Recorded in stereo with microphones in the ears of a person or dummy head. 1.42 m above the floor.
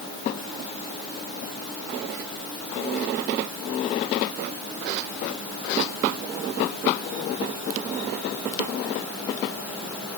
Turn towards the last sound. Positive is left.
No sound to turn to.